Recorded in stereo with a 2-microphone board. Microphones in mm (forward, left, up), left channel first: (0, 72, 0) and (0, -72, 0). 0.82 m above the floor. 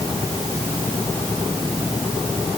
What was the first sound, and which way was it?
Only background noise.